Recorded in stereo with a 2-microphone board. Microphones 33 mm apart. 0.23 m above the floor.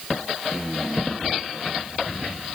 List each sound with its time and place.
Only background noise.